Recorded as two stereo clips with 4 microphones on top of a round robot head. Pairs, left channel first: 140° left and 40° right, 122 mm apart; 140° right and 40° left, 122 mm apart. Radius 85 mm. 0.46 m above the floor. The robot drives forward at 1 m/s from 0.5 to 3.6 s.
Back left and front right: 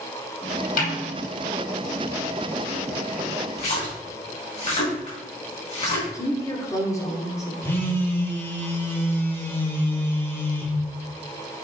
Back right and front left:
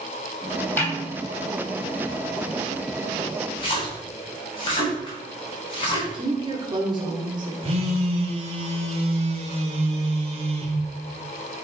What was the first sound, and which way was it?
A snare drum, 145° left.